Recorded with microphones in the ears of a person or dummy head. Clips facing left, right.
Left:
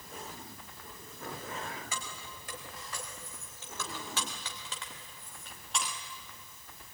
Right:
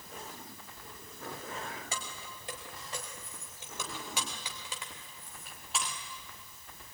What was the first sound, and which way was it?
Keys jangling, 20° right (ahead or behind).